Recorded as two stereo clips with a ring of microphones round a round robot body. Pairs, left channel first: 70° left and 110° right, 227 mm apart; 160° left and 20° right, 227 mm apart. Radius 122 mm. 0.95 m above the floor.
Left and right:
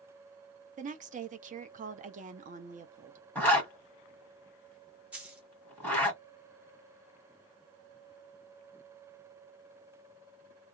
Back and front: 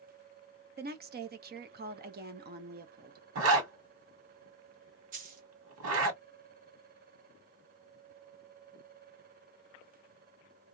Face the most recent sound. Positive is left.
turn(degrees=-30)